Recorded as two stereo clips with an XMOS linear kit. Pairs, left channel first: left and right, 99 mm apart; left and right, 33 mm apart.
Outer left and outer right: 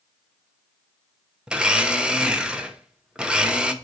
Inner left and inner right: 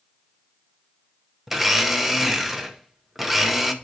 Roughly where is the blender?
Centre.